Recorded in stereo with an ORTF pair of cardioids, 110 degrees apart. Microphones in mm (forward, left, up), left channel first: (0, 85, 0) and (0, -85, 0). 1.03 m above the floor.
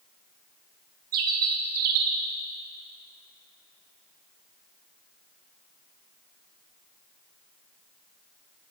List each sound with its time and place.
1.1 s a bird: 60° right, 1.5 m